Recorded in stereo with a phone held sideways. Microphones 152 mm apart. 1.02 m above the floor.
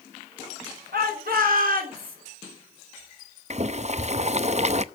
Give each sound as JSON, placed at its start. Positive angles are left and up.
{"t": 0.9, "sound": "a shout", "side_deg": -85, "distance_m": 5.5}
{"t": 3.5, "sound": "boiling", "side_deg": -45, "distance_m": 0.6}